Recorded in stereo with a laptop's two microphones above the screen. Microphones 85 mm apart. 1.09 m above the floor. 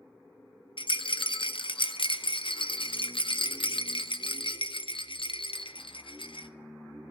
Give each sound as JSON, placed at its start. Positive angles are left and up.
{"t": 0.8, "sound": "a rattle", "side_deg": 80, "distance_m": 0.6}